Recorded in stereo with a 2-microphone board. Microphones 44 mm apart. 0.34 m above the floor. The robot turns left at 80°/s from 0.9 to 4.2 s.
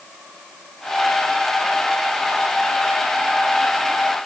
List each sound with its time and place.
Only background noise.